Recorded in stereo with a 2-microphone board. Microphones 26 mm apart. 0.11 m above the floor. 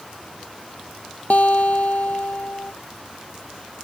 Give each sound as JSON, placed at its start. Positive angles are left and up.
{"t": 1.3, "sound": "a guitar", "side_deg": 65}